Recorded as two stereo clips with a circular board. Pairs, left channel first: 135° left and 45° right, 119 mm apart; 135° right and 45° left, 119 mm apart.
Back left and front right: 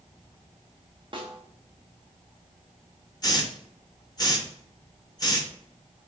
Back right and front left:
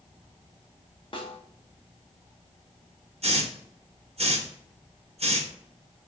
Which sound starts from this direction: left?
A hiss, at 3.2 s.